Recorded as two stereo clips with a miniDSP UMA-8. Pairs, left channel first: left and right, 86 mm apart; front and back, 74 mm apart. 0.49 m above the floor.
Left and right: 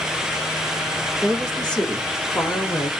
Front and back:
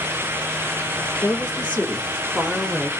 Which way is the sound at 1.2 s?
5° left.